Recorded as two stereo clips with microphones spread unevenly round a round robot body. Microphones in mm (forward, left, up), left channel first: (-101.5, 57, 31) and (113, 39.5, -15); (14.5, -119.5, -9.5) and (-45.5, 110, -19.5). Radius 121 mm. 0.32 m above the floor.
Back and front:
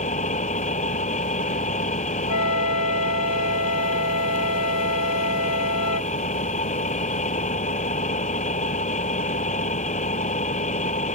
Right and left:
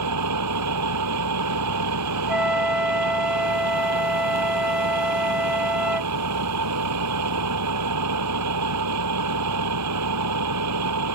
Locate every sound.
0.0 s an engine running: 120° left
2.3 s a flute: 170° right